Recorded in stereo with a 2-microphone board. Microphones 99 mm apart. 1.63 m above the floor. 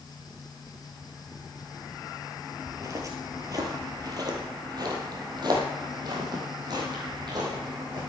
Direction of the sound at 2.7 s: 30° right (ahead or behind).